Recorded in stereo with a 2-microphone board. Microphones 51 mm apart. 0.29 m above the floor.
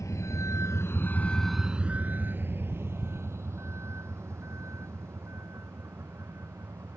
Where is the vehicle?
80° left; by 7.0 s 65° right (ahead or behind).